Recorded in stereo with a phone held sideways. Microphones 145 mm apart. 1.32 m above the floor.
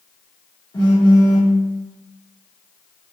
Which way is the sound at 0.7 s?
30° left (ahead or behind).